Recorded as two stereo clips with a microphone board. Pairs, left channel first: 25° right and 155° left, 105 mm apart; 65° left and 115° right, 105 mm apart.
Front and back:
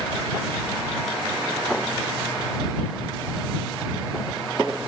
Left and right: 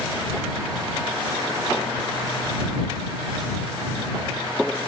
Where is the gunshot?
No gunshot in this recording.